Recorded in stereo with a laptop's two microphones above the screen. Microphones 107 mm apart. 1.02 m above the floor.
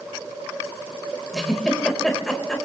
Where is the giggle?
5° left (ahead or behind), 4.5 m.